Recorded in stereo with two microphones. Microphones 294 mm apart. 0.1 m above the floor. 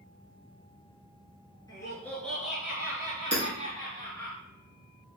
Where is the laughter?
15° left (ahead or behind), 1.6 m; by 4.3 s 30° right (ahead or behind), 1.8 m.